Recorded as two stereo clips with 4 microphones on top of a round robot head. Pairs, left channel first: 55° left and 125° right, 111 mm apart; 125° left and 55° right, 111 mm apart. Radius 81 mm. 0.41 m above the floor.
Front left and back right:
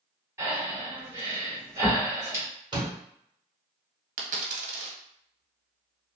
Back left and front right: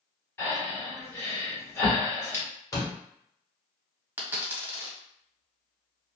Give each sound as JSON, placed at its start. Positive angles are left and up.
{"t": 0.4, "sound": "breathing", "azimuth_deg": 180, "distance_m": 1.6}
{"t": 2.7, "sound": "a door slam", "azimuth_deg": -175, "distance_m": 1.1}
{"t": 4.2, "sound": "a dropped coin", "azimuth_deg": -125, "distance_m": 0.6}